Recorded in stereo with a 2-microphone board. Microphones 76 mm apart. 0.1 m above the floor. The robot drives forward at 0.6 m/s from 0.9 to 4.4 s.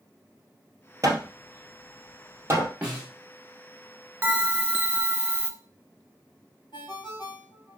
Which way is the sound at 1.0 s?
45° right (ahead or behind).